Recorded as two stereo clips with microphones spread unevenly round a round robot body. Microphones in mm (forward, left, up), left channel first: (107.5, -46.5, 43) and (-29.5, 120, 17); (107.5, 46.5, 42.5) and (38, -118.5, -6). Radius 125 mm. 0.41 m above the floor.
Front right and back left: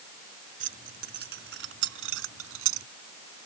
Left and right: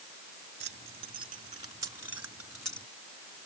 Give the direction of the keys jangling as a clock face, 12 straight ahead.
6 o'clock.